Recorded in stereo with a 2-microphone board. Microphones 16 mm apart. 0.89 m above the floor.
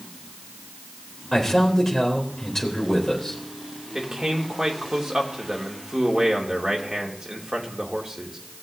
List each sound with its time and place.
1.3 s a man speaking: 25° left (ahead or behind), 3 m
4.0 s a man speaking: 30° right (ahead or behind), 2 m